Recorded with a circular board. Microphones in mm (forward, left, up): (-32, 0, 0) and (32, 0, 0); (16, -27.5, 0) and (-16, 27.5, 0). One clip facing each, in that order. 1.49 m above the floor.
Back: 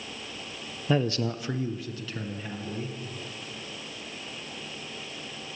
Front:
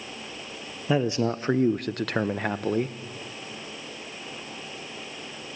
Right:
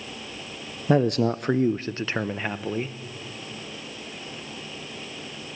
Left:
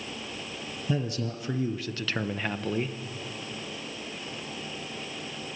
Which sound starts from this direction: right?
A man speaking, at 0.9 s.